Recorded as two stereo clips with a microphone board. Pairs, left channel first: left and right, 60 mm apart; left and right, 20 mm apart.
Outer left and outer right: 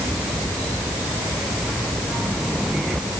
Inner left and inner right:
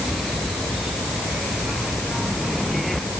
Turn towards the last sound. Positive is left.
No sound to turn to.